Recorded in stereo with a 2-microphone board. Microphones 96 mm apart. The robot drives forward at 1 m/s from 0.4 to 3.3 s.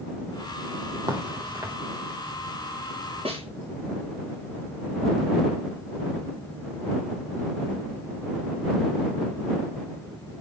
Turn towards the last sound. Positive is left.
turn(degrees=-80)